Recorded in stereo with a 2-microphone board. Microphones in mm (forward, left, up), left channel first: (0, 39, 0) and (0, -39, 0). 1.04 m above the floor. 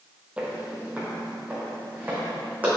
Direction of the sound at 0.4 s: 15° right (ahead or behind).